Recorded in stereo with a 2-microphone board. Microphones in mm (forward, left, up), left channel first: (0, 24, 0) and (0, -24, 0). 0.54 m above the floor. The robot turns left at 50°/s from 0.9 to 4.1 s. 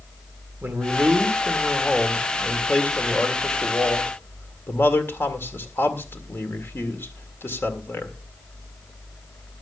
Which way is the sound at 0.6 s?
115° right.